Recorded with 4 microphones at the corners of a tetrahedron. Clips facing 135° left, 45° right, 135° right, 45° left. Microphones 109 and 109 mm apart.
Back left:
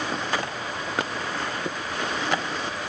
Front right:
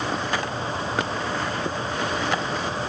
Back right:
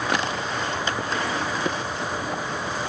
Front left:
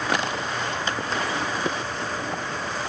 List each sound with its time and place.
Only background noise.